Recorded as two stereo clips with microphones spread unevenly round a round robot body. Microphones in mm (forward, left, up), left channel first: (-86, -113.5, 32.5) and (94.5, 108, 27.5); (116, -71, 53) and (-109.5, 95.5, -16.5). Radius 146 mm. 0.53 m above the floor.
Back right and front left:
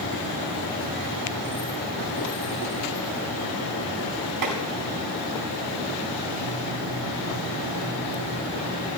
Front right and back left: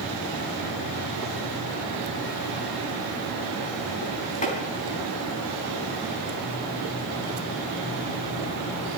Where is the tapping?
30° left, 4 m.